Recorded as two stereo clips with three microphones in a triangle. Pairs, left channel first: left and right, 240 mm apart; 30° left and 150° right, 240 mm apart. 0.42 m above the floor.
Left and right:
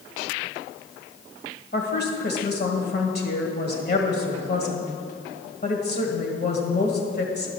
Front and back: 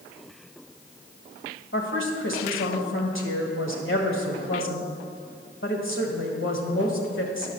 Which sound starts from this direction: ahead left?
A woman speaking, at 1.7 s.